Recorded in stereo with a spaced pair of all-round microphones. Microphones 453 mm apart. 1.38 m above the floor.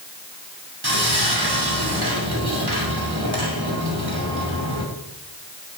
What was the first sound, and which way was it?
Sawing, 55° right (ahead or behind).